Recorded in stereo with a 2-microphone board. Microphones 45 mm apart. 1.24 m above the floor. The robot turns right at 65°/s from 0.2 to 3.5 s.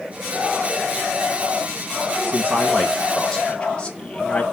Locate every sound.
2.3 s a man speaking: 60° right, 1.5 m; by 4.4 s 25° left, 1.5 m